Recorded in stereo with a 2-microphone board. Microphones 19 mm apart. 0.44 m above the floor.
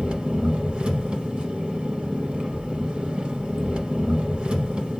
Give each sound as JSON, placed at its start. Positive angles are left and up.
{"t": 0.0, "sound": "an engine running", "side_deg": -85, "distance_m": 0.9}